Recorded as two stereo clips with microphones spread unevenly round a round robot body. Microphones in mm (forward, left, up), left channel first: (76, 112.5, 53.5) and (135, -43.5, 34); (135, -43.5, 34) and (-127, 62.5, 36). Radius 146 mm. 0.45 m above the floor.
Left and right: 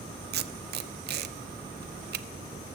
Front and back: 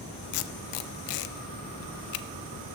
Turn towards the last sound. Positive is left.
turn(degrees=-40)